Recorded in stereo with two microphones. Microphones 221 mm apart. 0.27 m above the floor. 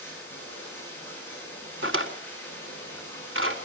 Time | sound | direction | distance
0.0 | running water | 10° left (ahead or behind) | 9 m
1.8 | a drawer | 70° right (ahead or behind) | 1.5 m